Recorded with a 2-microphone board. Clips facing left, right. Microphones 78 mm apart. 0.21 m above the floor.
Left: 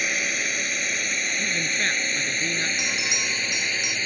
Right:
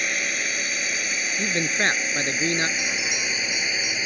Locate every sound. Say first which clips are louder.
0.0 s a drone: even; centre (ahead or behind); by 4.1 s 10° right (ahead or behind)
1.4 s a man speaking: right 6 dB; 40° right (ahead or behind)
2.8 s a bell: even; 20° left (ahead or behind)